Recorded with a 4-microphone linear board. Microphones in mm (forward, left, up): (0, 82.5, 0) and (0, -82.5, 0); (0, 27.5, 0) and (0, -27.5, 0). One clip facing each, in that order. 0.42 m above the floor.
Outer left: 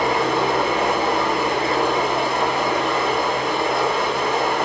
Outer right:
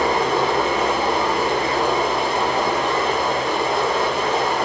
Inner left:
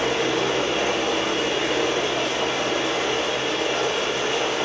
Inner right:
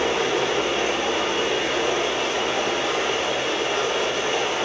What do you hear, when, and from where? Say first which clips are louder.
0.0 s running water: outer right 1 dB, even; 40° right (ahead or behind), 1.2 m